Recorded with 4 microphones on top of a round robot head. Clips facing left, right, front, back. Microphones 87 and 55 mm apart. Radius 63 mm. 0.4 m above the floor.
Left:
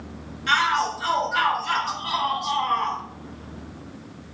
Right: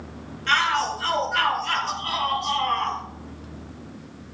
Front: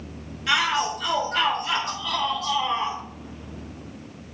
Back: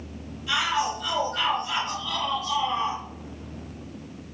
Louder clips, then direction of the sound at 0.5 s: Left 1 dB, front 3 dB; 10° left.